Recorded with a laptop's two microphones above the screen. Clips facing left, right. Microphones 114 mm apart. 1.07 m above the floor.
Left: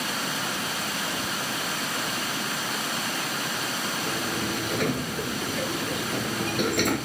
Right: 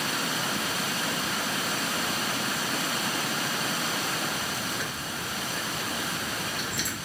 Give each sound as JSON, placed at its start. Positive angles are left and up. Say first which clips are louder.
{"t": 1.2, "sound": "ticking", "louder": "even", "side_deg": 25}
{"t": 4.1, "sound": "a sliding door", "louder": "left 3 dB", "side_deg": 65}